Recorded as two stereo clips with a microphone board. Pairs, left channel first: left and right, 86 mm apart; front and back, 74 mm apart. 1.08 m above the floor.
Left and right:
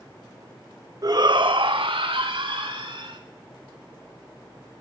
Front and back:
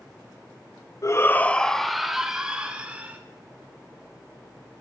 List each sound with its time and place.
1.0 s a shout: 45° right, 1.1 m; by 3.2 s 105° right, 3.5 m